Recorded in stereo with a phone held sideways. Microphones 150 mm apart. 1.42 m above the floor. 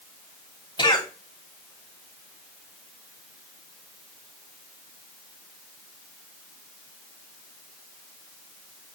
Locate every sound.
0.8 s a cough: 30° left (ahead or behind), 3 m